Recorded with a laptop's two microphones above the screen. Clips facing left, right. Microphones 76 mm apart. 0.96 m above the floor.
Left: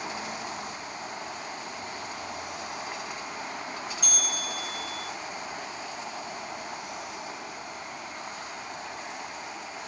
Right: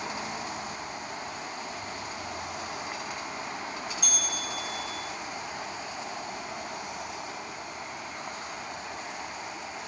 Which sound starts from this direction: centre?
A bell, at 4.0 s.